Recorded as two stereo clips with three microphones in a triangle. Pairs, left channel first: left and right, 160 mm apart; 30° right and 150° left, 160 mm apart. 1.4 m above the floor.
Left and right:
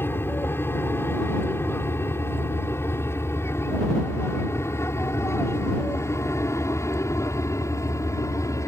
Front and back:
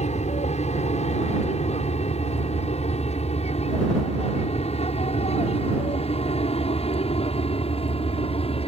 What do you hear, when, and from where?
0.0 s an aircraft: 15° left; by 8.7 s 20° left